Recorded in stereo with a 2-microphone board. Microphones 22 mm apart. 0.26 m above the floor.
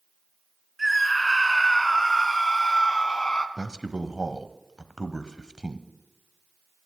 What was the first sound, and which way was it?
A scream, 5° right (ahead or behind).